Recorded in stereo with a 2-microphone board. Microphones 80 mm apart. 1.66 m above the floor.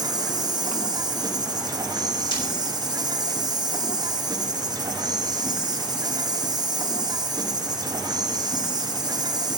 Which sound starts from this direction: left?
Breaking glass, at 2.3 s.